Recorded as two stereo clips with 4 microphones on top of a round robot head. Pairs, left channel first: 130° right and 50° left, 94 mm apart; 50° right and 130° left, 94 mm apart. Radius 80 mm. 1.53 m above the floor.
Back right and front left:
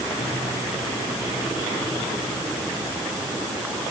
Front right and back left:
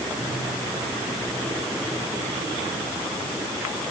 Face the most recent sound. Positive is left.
No sound to turn to.